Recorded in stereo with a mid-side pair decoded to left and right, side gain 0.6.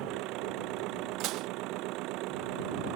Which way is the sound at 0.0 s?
70° right.